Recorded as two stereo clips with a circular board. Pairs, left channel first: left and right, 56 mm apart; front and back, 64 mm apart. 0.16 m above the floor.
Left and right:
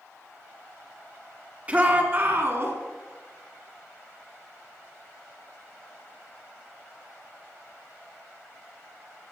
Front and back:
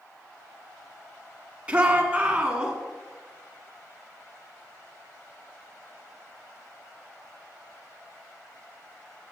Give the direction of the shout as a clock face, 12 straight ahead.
4 o'clock.